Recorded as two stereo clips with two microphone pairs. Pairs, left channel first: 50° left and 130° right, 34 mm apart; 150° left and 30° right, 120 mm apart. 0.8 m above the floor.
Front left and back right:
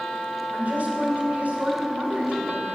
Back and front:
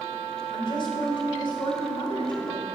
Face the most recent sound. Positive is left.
turn(degrees=-165)